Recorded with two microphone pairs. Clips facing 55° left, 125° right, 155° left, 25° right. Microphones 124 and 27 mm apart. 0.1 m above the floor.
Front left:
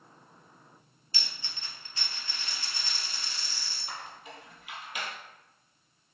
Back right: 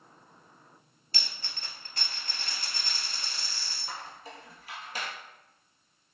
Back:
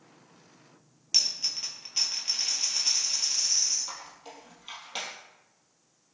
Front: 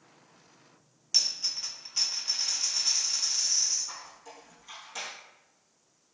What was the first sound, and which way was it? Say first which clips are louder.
A dropped coin: back right 1 dB, back 1 dB; 135° right.